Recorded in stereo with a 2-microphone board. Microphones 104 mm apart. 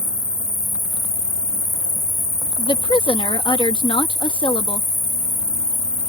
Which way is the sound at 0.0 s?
90° left.